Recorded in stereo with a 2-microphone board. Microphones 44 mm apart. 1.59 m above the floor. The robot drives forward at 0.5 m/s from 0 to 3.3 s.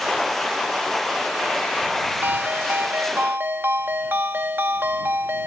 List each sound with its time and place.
2.2 s a ringtone: 60° right (ahead or behind); by 5.5 s 55° right (ahead or behind)